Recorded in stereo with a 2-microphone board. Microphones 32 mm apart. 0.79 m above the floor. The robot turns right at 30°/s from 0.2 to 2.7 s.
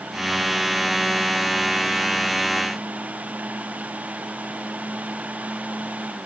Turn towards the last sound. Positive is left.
No sound to turn to.